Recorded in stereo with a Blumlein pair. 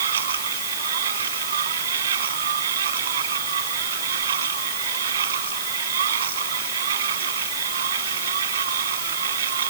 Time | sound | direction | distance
0.0 | a machine running | 60° right | ?